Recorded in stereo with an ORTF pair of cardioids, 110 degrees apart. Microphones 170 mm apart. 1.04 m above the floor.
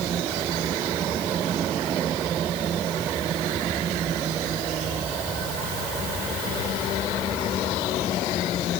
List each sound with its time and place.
Only background noise.